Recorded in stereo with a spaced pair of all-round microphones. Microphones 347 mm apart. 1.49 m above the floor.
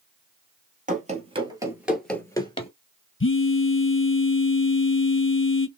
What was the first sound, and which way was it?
Running footsteps, 25° right (ahead or behind).